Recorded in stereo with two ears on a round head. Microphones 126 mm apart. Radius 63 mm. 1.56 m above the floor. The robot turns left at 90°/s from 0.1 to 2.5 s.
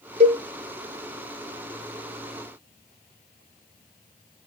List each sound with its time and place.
0.2 s a cowbell: 40° right (ahead or behind), 0.9 m; by 0.4 s 25° right (ahead or behind), 0.9 m